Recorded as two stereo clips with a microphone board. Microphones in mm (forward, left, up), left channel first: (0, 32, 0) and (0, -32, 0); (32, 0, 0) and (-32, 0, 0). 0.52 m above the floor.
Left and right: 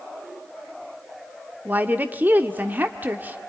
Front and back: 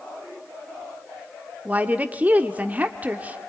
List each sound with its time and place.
1.6 s a woman speaking: 135° right, 1.2 m